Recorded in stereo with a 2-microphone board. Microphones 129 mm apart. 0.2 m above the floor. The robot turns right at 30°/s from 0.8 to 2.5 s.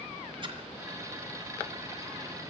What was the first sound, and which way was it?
A splash, 40° right (ahead or behind).